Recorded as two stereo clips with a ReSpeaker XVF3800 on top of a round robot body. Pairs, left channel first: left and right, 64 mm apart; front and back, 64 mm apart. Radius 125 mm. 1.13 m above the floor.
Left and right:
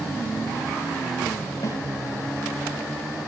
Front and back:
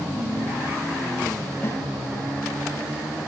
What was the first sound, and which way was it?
A snare drum, 55° left.